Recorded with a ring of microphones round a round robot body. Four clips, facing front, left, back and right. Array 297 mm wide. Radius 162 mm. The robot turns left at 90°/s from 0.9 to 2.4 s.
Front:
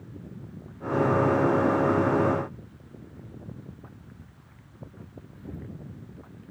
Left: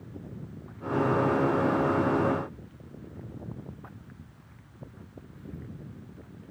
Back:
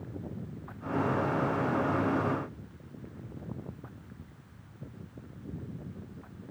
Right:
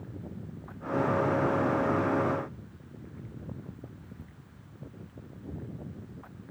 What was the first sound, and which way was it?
Only background noise.